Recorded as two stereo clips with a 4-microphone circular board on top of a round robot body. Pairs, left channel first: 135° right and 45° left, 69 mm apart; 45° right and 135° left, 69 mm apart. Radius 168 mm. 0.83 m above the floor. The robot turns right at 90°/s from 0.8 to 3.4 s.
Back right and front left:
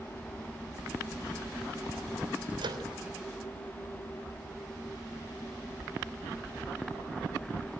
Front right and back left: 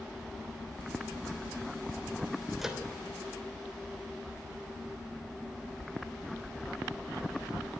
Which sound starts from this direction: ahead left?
A microwave, at 2.6 s.